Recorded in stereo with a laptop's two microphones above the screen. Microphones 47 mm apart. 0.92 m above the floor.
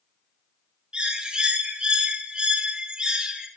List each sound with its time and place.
0.9 s a bird: 15° right (ahead or behind), 1.1 m